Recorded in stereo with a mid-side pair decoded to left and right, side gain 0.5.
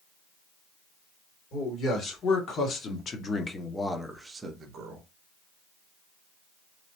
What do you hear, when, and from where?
1.5 s a man speaking: 60° left, 1.9 m; by 5.0 s 70° right, 0.8 m